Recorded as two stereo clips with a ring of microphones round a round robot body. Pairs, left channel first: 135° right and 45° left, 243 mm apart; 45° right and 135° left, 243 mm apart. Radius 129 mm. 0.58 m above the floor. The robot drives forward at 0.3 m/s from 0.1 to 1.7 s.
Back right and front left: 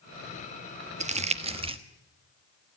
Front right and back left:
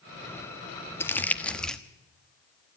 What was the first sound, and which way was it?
Crumpling, 25° left.